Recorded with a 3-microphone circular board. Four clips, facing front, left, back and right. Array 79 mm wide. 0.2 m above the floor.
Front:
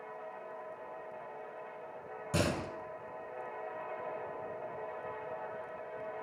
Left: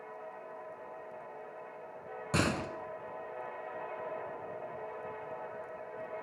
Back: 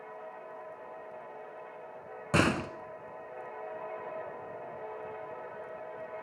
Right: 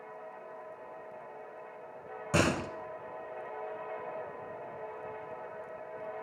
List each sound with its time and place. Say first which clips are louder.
2.3 s a door slam: right 3 dB, back 6 dB; 170° right, 1.9 m